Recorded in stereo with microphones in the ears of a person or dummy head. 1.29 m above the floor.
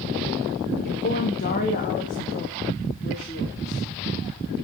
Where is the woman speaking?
45° left (ahead or behind), 1.2 m; by 3.9 s 35° left (ahead or behind), 3.5 m.